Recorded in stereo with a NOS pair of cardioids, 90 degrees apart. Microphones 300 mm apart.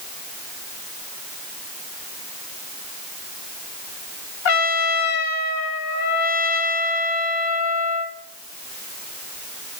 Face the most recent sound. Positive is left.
turn(degrees=65)